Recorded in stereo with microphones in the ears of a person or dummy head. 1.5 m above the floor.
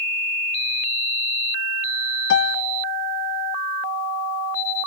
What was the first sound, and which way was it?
A piano, 60° left (ahead or behind).